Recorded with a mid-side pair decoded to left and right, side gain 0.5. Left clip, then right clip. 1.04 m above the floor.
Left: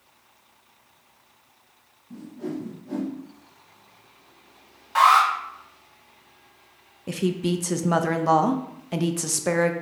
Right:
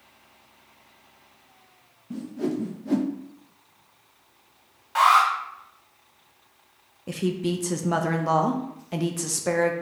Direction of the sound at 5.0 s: 15° left.